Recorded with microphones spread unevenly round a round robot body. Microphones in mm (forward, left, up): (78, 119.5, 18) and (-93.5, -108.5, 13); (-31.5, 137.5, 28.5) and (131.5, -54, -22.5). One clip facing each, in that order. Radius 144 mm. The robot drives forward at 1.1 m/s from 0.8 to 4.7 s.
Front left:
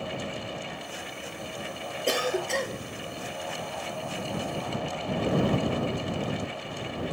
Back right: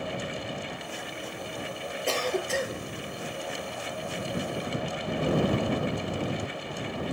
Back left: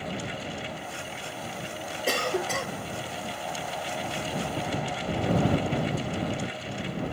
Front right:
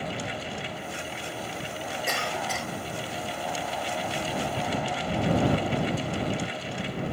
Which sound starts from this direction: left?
A cough, at 2.1 s.